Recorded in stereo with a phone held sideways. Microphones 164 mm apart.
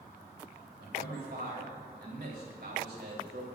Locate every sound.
0.8 s a man speaking: 90° right, 4 m